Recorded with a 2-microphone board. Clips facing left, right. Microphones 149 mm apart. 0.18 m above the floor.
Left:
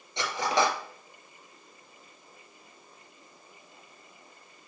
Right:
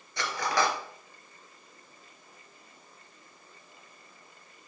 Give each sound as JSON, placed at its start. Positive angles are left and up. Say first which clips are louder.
{"t": 0.2, "sound": "cutlery clinking", "louder": "left 2 dB", "side_deg": 25, "distance_m": 1.9}